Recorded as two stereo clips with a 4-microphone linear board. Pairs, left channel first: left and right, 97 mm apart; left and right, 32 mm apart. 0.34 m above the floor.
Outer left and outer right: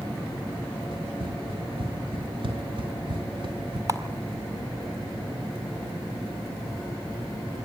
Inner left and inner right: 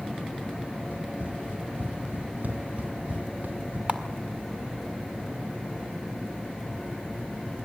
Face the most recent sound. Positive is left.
turn(degrees=-35)  # may be behind; listen again after turning